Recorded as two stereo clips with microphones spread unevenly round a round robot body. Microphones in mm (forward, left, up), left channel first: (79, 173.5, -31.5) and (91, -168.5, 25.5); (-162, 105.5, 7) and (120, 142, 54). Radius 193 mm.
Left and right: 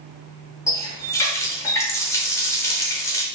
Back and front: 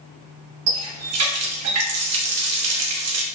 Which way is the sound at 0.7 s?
25° left.